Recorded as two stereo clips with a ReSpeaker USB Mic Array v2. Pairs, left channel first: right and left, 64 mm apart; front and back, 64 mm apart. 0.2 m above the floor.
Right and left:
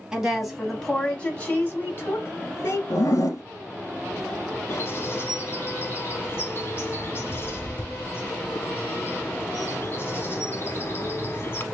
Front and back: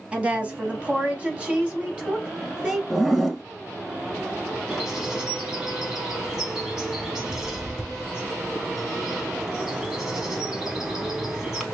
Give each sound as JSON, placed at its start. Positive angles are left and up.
{"t": 0.1, "sound": "a woman speaking", "azimuth_deg": 150, "distance_m": 1.0}
{"t": 2.9, "sound": "a zipper", "azimuth_deg": -95, "distance_m": 0.9}
{"t": 4.7, "sound": "a bird", "azimuth_deg": -105, "distance_m": 0.7}